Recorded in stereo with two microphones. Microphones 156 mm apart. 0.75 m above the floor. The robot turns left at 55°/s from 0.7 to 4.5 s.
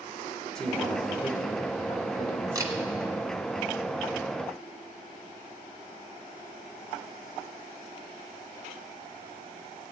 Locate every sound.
0.6 s a man speaking: 175° left, 2.5 m; by 3.1 s 40° left, 2.5 m
2.5 s a camera shutter: 25° right (ahead or behind), 1.5 m; by 2.7 s 15° right (ahead or behind), 1.5 m